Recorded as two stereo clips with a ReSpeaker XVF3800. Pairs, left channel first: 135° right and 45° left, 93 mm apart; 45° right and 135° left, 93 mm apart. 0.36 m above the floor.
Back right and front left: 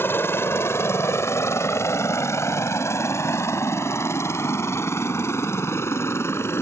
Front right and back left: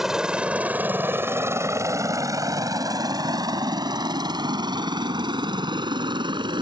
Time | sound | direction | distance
0.0 | a helicopter | 145° right | ?